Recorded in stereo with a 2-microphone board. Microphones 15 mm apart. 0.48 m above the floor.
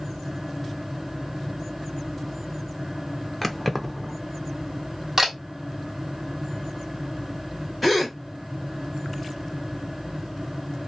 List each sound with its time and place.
3.4 s keys jangling: 10° left (ahead or behind), 0.6 m
5.2 s a camera shutter: 20° right (ahead or behind), 1.3 m
7.8 s a gasp: centre (ahead or behind), 1.7 m